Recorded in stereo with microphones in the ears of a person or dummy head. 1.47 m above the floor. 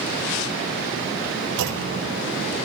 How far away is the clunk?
About 1.0 m.